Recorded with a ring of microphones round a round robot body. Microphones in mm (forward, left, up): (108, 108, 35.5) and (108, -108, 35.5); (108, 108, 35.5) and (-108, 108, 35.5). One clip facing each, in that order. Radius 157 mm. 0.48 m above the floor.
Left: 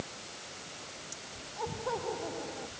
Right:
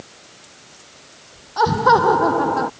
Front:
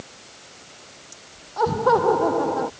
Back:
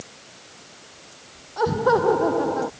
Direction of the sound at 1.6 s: 95° right.